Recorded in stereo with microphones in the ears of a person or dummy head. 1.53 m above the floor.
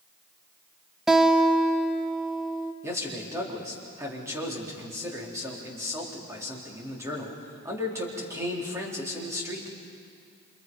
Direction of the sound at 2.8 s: 20° right (ahead or behind).